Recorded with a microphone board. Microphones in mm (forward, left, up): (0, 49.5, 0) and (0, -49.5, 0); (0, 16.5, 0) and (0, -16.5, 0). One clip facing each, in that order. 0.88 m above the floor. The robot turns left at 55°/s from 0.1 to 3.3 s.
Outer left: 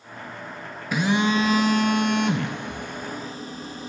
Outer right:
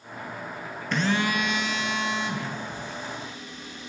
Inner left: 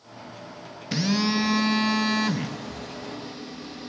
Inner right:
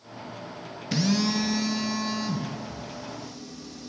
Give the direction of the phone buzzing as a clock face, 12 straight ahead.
6 o'clock.